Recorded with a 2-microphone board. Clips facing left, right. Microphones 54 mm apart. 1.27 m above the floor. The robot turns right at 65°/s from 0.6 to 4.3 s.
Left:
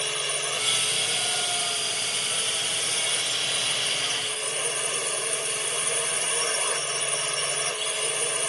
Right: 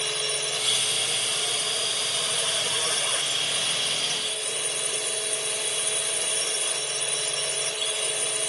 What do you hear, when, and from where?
0.0 s a drone: 160° left; by 8.5 s 40° left